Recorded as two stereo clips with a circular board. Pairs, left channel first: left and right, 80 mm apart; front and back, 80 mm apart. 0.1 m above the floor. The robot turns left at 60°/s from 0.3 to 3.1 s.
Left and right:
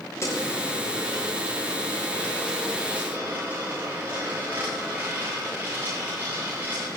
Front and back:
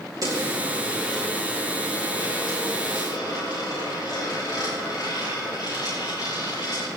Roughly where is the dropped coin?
Behind left.